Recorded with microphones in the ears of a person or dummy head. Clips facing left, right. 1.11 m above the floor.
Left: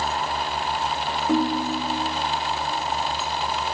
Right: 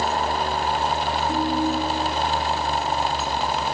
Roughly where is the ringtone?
Left.